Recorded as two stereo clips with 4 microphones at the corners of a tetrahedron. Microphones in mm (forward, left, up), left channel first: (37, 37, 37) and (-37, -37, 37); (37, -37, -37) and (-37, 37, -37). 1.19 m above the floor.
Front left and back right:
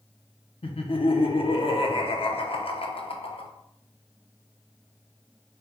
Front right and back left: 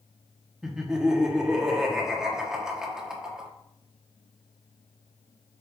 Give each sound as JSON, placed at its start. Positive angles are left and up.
{"t": 0.6, "sound": "laughter", "azimuth_deg": 50, "distance_m": 0.8}